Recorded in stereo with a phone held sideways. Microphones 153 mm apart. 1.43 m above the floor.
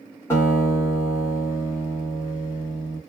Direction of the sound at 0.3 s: 15° left (ahead or behind).